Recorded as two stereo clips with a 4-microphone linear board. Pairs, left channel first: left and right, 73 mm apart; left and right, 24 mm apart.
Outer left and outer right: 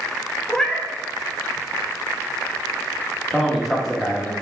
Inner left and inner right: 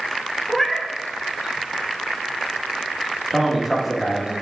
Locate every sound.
0.5 s a cat meowing: 10° left (ahead or behind), 0.6 m
3.3 s a man speaking: 5° right (ahead or behind), 1.4 m